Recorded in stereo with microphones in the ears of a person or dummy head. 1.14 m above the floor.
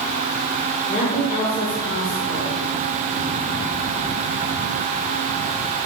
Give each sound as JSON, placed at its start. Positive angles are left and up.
{"t": 0.9, "sound": "a woman speaking", "side_deg": 45, "distance_m": 3.5}